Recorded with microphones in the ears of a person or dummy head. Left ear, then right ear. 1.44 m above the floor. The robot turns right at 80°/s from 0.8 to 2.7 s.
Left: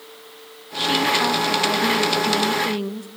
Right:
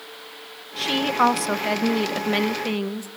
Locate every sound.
0.8 s a woman speaking: 175° right, 0.9 m; by 3.1 s 20° right, 0.9 m